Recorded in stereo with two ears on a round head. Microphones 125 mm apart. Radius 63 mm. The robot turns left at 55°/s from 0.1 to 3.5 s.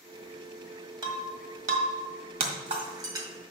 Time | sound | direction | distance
1.0 | breaking glass | 30° right (ahead or behind) | 1.7 m